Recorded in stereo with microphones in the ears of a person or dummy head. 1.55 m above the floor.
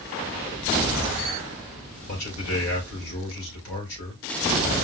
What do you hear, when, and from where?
2.1 s a man speaking: 75° left (ahead or behind), 3.5 m